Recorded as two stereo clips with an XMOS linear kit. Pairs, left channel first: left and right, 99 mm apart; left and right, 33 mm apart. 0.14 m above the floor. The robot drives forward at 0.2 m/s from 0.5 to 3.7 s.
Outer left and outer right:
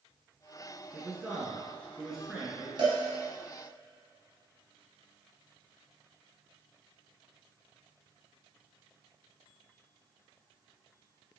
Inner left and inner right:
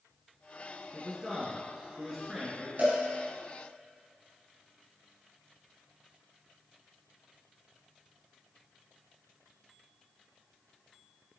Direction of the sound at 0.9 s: 5° right (ahead or behind).